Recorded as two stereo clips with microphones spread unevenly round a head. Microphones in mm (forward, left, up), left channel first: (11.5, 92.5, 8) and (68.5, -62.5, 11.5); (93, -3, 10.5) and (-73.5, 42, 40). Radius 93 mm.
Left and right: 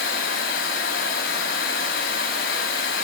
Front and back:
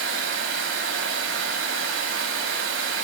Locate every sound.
0.0 s running water: 155° left, 5 m